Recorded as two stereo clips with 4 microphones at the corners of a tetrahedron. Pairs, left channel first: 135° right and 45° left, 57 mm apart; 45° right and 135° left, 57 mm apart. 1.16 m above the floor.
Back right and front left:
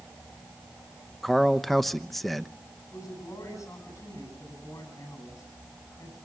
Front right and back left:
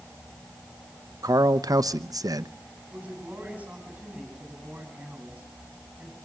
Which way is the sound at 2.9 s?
155° right.